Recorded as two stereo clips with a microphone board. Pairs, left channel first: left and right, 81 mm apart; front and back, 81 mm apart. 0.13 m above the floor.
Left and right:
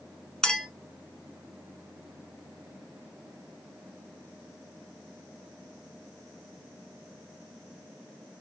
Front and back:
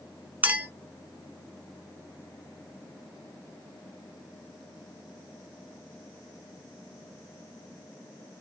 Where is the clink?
160° left, 0.9 m.